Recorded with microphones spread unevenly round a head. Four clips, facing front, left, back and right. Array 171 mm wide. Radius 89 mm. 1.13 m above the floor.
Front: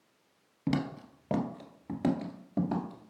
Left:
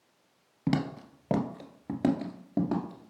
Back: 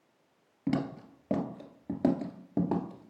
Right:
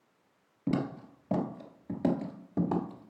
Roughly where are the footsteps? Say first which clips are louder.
Left 2 dB, back 1 dB; ahead left.